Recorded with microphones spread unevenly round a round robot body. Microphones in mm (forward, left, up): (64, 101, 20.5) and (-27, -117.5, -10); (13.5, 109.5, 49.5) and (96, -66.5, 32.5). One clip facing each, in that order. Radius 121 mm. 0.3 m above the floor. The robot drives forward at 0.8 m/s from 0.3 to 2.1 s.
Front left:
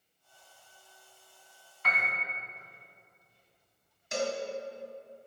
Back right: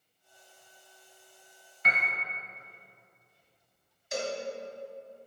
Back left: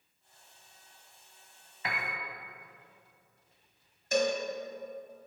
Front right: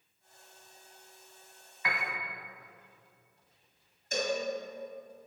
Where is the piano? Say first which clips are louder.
Back right 1 dB, front right 1 dB; straight behind, 1.3 m.